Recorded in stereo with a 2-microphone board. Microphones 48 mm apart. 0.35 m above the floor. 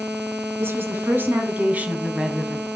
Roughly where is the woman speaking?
Right.